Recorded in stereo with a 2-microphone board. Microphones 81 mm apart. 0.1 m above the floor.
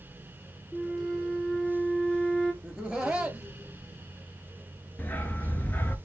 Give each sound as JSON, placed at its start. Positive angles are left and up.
{"t": 0.7, "sound": "a flute", "side_deg": 5, "distance_m": 0.9}
{"t": 2.6, "sound": "laughter", "side_deg": -10, "distance_m": 1.5}
{"t": 5.0, "sound": "a dog barking", "side_deg": 25, "distance_m": 0.7}